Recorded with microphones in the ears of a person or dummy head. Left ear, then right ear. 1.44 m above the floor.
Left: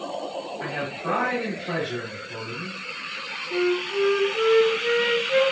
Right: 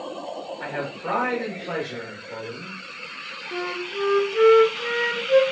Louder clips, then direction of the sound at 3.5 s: Left 5 dB; 50° right (ahead or behind).